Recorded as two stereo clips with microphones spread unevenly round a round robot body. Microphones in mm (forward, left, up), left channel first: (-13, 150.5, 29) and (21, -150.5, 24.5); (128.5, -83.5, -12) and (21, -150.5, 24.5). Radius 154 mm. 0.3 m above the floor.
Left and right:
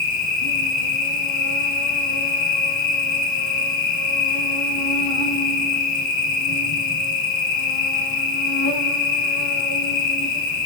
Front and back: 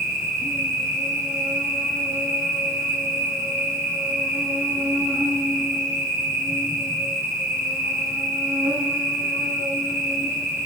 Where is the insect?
125° left, 2 m.